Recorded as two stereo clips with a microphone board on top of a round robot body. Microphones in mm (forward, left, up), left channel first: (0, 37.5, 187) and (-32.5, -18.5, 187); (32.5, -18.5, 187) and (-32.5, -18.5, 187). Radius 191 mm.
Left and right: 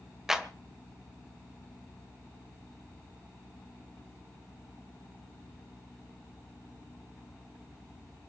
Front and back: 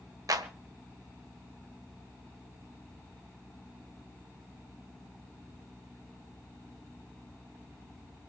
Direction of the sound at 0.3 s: 160° left.